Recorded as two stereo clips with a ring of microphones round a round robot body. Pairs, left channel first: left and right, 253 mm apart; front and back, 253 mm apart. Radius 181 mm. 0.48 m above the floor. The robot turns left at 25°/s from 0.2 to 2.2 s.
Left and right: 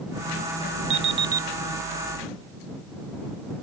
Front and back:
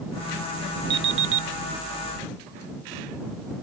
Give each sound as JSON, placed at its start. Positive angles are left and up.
{"t": 0.9, "sound": "an alarm clock", "azimuth_deg": -130}